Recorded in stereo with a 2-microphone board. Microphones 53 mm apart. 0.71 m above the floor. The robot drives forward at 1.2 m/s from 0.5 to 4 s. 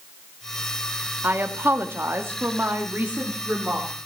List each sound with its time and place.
1.2 s a woman speaking: 40° right (ahead or behind), 1.7 m; by 3.9 s 25° right (ahead or behind), 3 m